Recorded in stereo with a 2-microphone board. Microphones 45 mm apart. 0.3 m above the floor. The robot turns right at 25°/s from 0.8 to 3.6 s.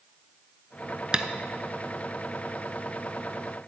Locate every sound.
1.1 s tapping: 20° right (ahead or behind), 0.5 m; by 1.2 s 25° right (ahead or behind), 0.5 m